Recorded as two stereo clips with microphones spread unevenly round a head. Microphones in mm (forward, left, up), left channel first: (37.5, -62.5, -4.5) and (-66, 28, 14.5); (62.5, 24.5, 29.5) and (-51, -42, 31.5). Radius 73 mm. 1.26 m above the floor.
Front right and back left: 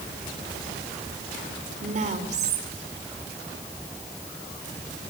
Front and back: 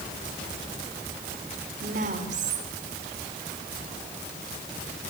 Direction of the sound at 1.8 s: 175° left.